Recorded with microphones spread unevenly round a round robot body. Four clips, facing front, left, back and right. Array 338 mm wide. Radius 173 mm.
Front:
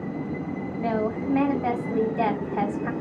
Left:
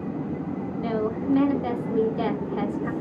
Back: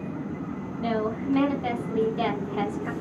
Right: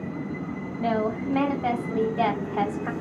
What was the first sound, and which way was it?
A woman speaking, 10° left.